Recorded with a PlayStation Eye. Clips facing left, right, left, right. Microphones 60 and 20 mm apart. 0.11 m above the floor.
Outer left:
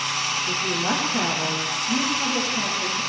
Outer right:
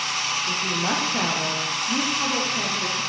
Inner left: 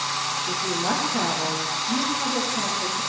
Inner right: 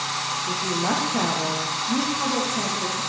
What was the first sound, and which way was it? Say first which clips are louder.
A woman speaking: outer left 1 dB, inner right 2 dB; centre (ahead or behind).